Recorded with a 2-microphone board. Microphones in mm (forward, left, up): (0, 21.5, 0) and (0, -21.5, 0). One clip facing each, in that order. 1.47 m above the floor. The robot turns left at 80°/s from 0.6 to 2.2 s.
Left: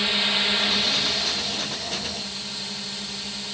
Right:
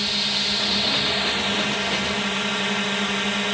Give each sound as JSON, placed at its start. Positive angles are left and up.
{"t": 0.0, "sound": "a drone", "azimuth_deg": 20}